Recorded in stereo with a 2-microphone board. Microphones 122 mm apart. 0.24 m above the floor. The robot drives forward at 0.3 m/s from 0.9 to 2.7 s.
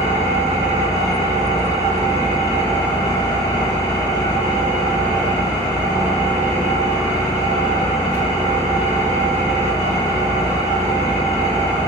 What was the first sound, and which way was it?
An engine running, 70° right (ahead or behind).